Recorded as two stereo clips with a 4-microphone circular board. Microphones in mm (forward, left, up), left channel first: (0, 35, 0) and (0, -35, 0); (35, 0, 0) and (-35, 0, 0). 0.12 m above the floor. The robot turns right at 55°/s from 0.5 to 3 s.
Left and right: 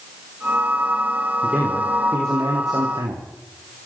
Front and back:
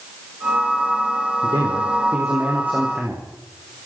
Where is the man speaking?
175° left, 6.5 m; by 3.2 s 95° right, 6.5 m.